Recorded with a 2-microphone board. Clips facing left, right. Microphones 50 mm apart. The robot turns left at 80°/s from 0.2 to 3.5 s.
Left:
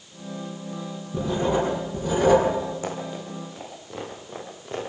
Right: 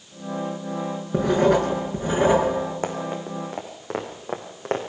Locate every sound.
1.1 s writing: 65° right, 6 m; by 2.5 s 170° right, 6 m
2.8 s running footsteps: 40° right (ahead or behind), 5 m; by 4.8 s 70° right (ahead or behind), 5 m